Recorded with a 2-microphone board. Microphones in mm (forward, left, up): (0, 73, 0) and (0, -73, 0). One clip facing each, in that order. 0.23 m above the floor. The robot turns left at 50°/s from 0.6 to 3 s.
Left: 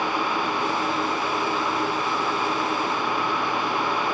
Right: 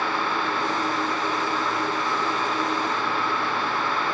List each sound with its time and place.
Only background noise.